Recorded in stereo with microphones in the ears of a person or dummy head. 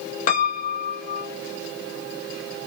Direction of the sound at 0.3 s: 40° left (ahead or behind).